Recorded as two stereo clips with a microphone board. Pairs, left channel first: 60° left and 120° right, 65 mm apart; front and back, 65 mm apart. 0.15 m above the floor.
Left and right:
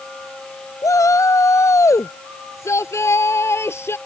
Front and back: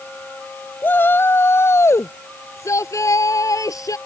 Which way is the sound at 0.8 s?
50° left.